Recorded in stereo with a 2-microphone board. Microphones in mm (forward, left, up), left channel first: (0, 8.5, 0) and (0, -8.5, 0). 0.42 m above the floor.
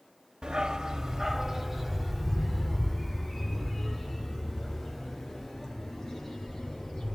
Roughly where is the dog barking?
Right.